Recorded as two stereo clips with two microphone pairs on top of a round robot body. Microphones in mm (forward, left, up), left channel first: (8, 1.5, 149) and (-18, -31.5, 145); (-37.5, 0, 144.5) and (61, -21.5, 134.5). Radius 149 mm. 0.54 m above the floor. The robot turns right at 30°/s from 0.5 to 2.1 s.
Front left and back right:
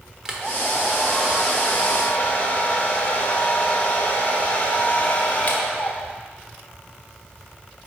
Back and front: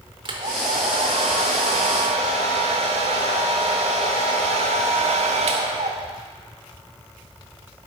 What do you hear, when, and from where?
0.2 s a hair dryer: 50° right, 0.8 m; by 6.2 s 5° right, 0.8 m